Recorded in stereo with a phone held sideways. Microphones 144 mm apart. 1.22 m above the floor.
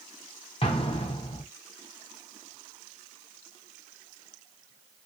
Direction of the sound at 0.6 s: 40° left (ahead or behind).